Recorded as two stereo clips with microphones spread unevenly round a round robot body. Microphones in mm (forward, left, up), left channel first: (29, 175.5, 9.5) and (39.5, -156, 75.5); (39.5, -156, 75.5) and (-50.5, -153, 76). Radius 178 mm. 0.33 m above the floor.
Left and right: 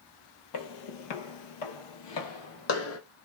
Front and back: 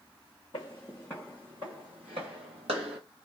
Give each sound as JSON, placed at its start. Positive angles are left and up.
{"t": 0.5, "sound": "footsteps", "azimuth_deg": 55, "distance_m": 0.8}